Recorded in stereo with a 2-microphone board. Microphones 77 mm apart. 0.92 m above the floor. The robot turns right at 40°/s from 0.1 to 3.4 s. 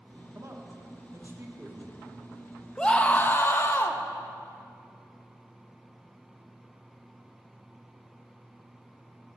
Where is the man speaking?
40° right (ahead or behind), 1.0 m; by 2.0 s 15° right (ahead or behind), 1.0 m.